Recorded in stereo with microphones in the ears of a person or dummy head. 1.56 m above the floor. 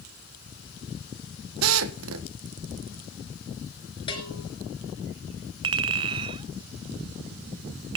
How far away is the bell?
About 3.5 m.